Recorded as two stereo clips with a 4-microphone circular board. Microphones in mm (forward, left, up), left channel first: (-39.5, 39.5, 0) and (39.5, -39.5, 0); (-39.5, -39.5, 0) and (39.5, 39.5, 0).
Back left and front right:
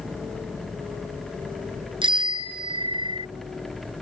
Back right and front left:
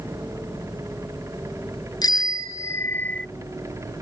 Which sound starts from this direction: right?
A bicycle bell, at 2.0 s.